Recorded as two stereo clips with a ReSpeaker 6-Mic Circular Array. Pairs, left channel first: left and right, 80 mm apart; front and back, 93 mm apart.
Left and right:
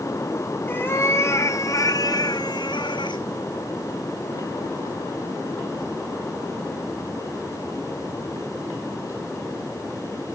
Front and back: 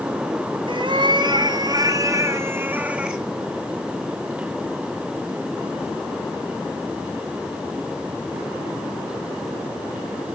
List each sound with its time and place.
0.7 s a cat meowing: 155° left, 1.5 m; by 3.2 s 95° left, 1.1 m